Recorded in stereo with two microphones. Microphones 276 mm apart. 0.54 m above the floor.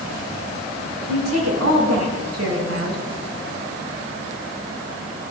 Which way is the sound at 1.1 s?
70° right (ahead or behind).